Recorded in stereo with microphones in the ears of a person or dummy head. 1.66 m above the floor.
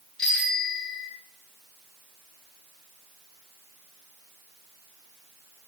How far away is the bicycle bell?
About 4.5 m.